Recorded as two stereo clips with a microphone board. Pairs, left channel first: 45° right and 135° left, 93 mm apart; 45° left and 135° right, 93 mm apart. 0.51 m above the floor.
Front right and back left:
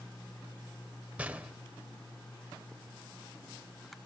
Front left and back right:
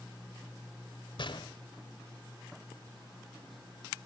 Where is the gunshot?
60° left, 1.4 m.